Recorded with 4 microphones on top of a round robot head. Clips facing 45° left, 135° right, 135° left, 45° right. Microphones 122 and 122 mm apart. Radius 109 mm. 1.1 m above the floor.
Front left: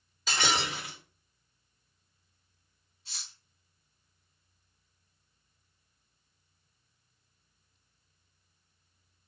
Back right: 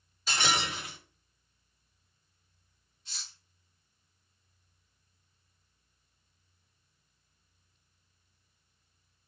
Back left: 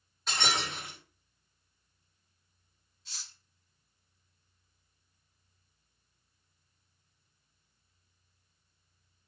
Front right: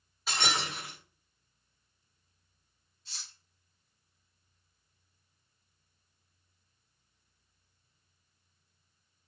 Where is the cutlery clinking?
110° left, 1.5 m.